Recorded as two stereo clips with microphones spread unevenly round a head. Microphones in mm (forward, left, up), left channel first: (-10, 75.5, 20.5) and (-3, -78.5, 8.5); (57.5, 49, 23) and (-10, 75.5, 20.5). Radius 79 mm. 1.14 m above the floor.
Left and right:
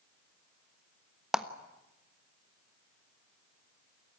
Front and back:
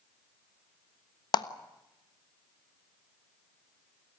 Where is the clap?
Straight ahead, 1.3 m.